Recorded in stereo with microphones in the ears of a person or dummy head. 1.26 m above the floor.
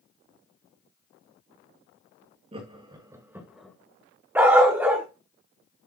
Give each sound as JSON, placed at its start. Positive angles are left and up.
{"t": 2.5, "sound": "laughter", "side_deg": -30, "distance_m": 1.8}
{"t": 4.3, "sound": "a dog barking", "side_deg": -10, "distance_m": 1.3}